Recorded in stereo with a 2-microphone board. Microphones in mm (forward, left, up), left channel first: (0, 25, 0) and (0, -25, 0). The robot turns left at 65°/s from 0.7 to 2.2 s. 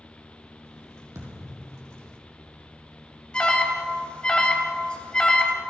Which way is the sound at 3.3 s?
20° left (ahead or behind).